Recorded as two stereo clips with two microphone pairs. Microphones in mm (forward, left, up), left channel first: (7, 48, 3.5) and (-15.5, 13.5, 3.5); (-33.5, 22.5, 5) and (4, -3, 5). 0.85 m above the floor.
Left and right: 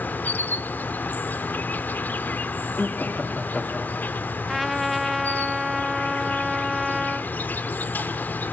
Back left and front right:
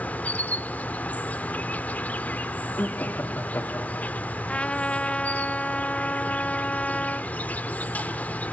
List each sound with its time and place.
0.0 s an insect: 95° left, 0.8 m
2.8 s laughter: 115° left, 2 m
4.5 s a trumpet: 145° left, 0.7 m